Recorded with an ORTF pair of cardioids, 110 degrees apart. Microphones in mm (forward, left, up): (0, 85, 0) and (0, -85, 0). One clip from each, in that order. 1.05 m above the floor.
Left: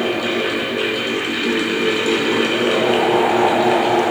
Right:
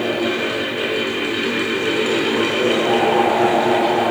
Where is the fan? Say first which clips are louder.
Left 1 dB; 15° left, 4 m.